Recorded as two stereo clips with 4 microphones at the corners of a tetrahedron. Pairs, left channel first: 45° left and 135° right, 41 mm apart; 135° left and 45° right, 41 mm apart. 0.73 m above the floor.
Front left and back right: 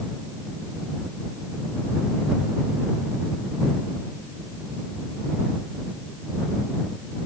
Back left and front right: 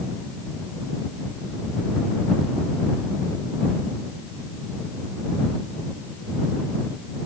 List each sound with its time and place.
Only background noise.